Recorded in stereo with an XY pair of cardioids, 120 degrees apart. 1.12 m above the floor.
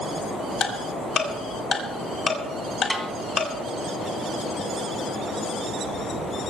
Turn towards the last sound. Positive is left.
turn(degrees=0)